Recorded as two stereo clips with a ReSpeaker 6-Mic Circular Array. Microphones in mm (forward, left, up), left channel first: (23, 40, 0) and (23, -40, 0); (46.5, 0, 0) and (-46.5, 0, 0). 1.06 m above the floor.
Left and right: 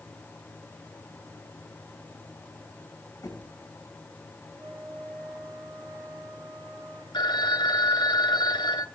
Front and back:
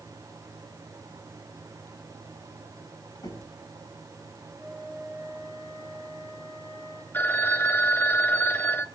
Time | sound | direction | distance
3.2 | knocking | 45° left | 5.5 m
4.6 | a flute | 70° right | 9 m
7.1 | a phone ringing | 70° left | 1.2 m